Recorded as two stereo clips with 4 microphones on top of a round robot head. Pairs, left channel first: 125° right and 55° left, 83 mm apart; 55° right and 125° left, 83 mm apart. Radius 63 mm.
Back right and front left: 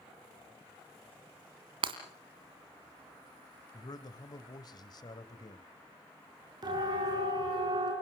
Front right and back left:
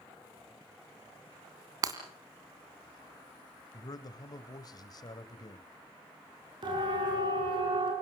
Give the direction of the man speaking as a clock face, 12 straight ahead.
3 o'clock.